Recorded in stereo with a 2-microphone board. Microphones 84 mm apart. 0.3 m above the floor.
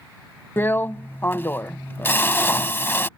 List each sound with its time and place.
0.6 s a drill: 30° left (ahead or behind)